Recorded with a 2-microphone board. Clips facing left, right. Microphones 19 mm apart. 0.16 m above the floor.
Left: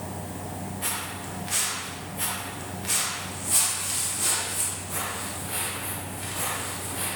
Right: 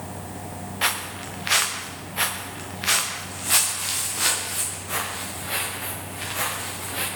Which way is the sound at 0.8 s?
70° right (ahead or behind).